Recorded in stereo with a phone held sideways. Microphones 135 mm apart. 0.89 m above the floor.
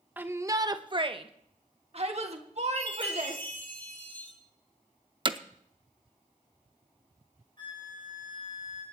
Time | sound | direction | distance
0.2 | a shout | 15° right (ahead or behind) | 0.9 m
2.8 | a chime | 15° left (ahead or behind) | 3.5 m
5.2 | hammering | 35° right (ahead or behind) | 0.6 m
7.6 | a flute | 35° left (ahead or behind) | 5.5 m